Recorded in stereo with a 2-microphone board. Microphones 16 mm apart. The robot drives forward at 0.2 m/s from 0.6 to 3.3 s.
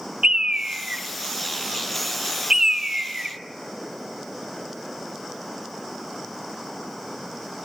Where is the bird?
65° right (ahead or behind), 0.5 m; by 3.4 s 35° right (ahead or behind), 0.8 m.